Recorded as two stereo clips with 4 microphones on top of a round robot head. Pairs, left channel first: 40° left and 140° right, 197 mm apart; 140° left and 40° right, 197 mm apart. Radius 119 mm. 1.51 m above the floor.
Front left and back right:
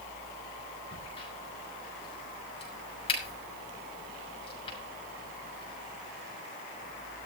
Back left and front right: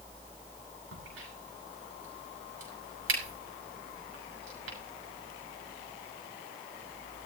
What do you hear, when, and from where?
0.9 s a crack: 25° right, 8.5 m